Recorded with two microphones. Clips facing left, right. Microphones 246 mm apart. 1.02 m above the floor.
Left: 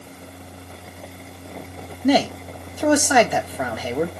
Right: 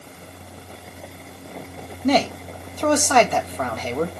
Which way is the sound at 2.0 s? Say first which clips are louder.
Left 2 dB; 10° left (ahead or behind).